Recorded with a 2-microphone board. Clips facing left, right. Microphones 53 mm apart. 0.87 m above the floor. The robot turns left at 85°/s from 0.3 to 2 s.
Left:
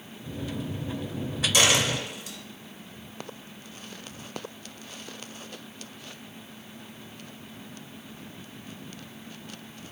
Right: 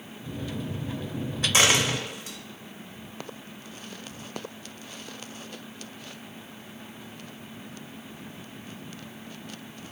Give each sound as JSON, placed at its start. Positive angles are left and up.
{"t": 1.5, "sound": "a dropped coin", "side_deg": -35, "distance_m": 1.0}